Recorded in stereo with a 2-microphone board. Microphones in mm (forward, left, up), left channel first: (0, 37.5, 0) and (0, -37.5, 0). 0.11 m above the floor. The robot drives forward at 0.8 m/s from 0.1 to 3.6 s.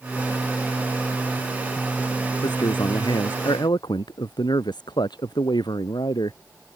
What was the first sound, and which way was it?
A man speaking, 80° left.